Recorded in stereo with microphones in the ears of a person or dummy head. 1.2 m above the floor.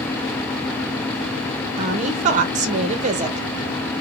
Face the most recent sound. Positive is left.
turn(degrees=-40)  # may be behind; listen again after turning